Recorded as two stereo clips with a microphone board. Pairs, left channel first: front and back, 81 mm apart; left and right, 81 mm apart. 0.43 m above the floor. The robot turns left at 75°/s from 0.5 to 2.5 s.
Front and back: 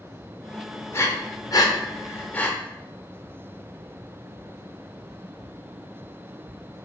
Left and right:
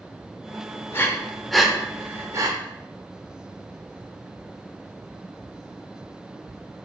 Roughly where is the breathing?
Ahead left.